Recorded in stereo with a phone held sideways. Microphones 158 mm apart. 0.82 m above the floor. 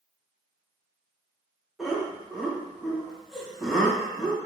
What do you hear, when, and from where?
1.8 s laughter: centre (ahead or behind), 0.8 m